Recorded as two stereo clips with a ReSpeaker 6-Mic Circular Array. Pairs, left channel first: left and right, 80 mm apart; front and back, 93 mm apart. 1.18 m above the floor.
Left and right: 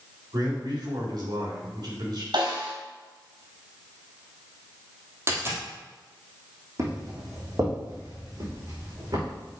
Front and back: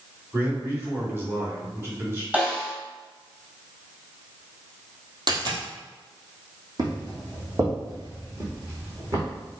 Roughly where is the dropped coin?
Behind right.